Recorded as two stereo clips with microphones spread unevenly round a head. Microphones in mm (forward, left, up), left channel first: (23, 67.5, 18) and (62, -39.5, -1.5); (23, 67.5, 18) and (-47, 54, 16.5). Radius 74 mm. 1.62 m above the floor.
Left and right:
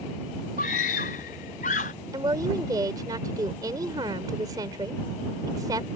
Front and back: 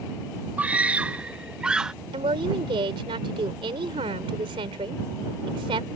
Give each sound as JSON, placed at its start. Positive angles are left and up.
{"t": 0.6, "sound": "a scream", "azimuth_deg": 120}
{"t": 2.1, "sound": "a woman speaking", "azimuth_deg": -140}